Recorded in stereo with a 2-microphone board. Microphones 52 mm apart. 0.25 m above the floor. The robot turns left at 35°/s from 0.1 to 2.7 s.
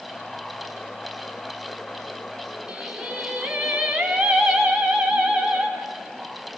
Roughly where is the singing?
Centre.